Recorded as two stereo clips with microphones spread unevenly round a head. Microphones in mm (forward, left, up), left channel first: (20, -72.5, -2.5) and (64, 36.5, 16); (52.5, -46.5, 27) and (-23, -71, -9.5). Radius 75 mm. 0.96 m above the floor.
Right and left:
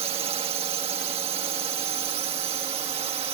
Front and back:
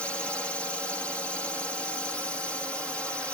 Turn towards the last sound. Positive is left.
turn(degrees=115)